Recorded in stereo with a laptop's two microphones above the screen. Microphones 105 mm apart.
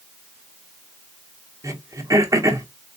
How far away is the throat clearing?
About 0.9 m.